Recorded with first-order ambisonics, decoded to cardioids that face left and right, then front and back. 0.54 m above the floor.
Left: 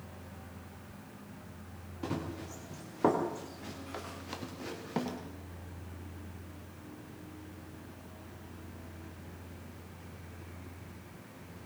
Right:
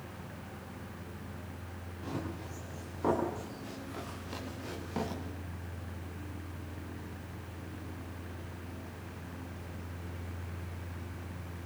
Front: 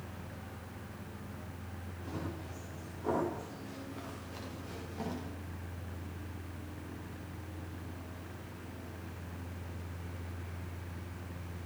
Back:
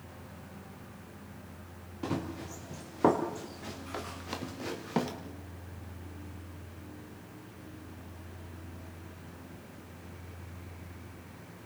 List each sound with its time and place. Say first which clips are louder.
2.0 s running footsteps: left 2 dB, back 7 dB; 150° left, 7 m; by 5.1 s 165° left, 5.5 m